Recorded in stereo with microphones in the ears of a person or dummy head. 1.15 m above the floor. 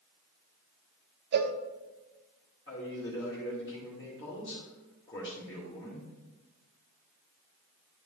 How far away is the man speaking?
About 2 m.